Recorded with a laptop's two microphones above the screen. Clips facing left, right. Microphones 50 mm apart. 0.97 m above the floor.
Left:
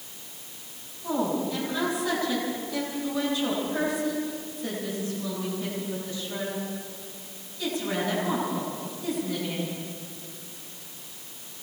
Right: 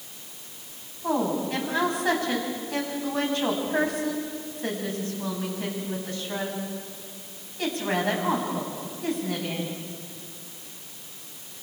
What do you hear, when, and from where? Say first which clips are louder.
1.0 s a woman speaking: right 2 dB; 55° right (ahead or behind), 8 m